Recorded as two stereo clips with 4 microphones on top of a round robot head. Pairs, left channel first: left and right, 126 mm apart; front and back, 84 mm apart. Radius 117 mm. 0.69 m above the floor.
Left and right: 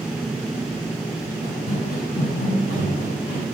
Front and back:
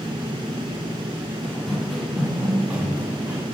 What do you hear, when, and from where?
1.4 s running footsteps: 80° left, 4.5 m; by 3.4 s 120° left, 5 m